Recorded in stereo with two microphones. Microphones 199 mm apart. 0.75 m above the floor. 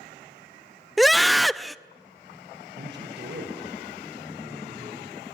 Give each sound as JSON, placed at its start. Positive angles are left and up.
{"t": 1.0, "sound": "a scream", "side_deg": 0, "distance_m": 0.5}
{"t": 2.8, "sound": "a man speaking", "side_deg": -70, "distance_m": 4.0}